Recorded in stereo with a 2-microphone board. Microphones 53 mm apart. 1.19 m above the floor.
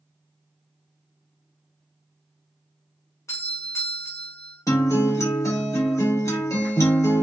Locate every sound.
3.3 s a doorbell: 65° left (ahead or behind), 1.3 m
4.7 s a guitar: 75° left (ahead or behind), 1.1 m